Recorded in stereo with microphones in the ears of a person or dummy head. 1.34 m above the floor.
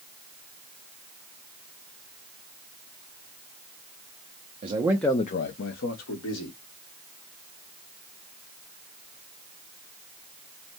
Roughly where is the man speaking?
Right.